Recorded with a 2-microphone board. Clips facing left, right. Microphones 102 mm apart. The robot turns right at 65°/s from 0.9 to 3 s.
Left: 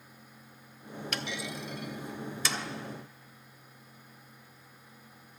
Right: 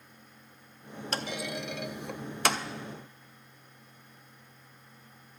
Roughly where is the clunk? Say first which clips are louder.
Right 4 dB; right.